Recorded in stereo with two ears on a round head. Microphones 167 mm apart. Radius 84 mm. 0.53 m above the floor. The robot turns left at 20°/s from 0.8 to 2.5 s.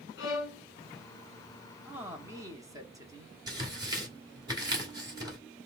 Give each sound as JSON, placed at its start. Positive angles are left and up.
{"t": 0.2, "sound": "a violin", "side_deg": 55, "distance_m": 1.8}
{"t": 1.9, "sound": "a man speaking", "side_deg": -10, "distance_m": 0.9}
{"t": 3.5, "sound": "tearing paper", "side_deg": -20, "distance_m": 1.7}